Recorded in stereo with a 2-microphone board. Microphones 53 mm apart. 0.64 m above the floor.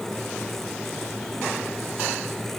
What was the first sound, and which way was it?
Only background noise.